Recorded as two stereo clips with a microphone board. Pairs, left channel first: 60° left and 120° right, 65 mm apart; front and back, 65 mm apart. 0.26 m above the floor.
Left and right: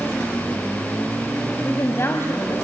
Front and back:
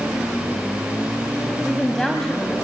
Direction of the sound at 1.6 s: 80° left.